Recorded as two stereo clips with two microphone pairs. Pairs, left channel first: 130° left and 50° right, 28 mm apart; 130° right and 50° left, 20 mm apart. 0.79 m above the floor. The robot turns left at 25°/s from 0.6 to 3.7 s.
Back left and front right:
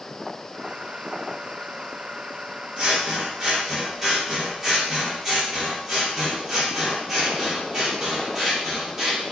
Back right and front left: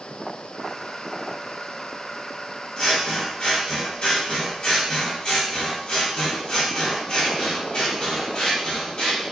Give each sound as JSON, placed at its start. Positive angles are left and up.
{"t": 2.8, "sound": "scissors", "azimuth_deg": -100, "distance_m": 1.2}